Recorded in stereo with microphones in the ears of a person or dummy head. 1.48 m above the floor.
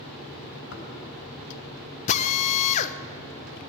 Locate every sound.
0.7 s knocking: 60° left (ahead or behind), 2.5 m
2.1 s a drill: 35° left (ahead or behind), 0.6 m